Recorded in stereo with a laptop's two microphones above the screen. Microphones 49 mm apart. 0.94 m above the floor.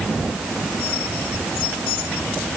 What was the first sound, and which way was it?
Only background noise.